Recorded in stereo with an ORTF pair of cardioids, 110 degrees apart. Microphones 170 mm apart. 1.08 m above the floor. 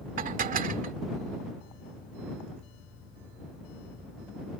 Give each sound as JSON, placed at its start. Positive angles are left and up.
{"t": 0.2, "sound": "dishes clattering", "azimuth_deg": -50}